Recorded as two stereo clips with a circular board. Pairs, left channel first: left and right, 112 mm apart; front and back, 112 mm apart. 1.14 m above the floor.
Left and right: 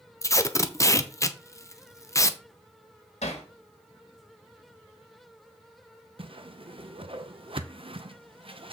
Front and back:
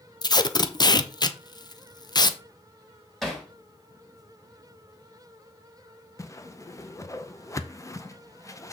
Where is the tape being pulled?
35° left, 0.6 m.